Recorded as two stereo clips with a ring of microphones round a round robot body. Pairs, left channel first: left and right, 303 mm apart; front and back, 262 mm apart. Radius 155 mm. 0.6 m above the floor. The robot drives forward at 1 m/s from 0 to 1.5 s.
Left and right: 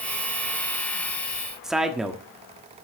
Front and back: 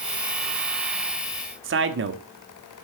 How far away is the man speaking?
About 1.3 m.